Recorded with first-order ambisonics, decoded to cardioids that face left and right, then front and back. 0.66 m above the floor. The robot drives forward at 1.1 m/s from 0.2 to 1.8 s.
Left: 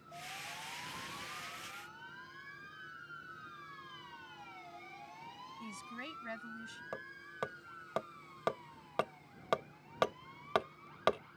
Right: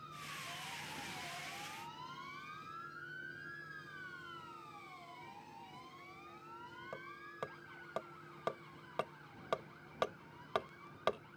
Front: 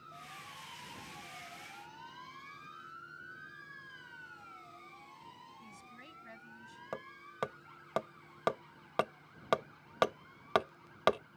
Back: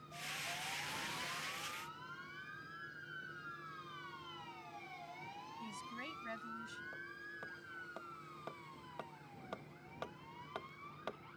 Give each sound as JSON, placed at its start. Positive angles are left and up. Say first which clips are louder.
{"t": 5.6, "sound": "a woman speaking", "louder": "left 7 dB, back 6 dB", "azimuth_deg": 110}
{"t": 6.9, "sound": "hammering", "louder": "left 3 dB, front 3 dB", "azimuth_deg": 20}